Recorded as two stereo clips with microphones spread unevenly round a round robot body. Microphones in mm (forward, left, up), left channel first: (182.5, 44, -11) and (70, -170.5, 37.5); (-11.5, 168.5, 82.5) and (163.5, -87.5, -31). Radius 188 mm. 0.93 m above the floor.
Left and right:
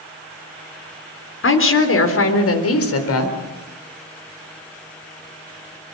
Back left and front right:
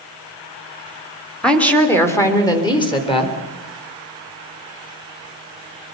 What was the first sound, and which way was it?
A woman speaking, 30° left.